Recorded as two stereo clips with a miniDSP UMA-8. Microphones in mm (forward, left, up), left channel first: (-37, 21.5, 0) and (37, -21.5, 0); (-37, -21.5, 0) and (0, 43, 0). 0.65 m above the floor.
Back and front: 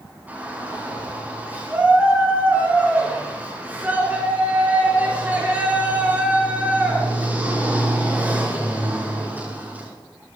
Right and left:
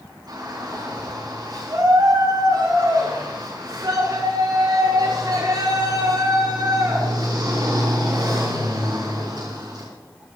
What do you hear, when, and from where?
0.3 s a shout: 40° left, 5 m